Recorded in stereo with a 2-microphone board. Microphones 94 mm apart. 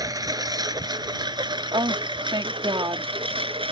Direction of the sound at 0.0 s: 40° right (ahead or behind).